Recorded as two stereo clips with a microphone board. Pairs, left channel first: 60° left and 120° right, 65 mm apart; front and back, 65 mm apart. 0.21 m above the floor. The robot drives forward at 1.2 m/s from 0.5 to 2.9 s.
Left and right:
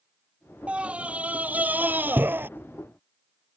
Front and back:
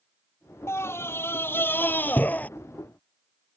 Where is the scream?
45° right; by 2.5 s 65° right.